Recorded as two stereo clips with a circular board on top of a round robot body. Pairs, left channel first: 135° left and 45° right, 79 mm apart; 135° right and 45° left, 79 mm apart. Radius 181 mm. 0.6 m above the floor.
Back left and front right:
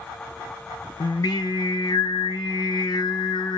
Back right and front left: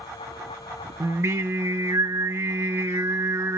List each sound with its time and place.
1.0 s singing: 100° left, 0.8 m